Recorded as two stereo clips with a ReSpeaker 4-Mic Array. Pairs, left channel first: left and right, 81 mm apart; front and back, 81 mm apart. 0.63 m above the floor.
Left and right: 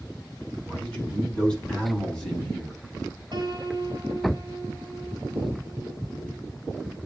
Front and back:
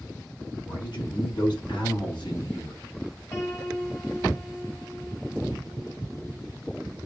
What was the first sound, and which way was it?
A man speaking, 15° left.